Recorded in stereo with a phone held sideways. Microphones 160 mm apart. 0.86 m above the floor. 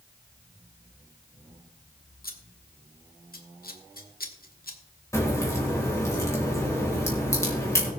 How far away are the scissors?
About 1.4 m.